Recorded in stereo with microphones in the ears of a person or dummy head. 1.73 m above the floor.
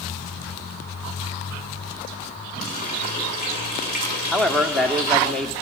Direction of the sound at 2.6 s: 50° left (ahead or behind).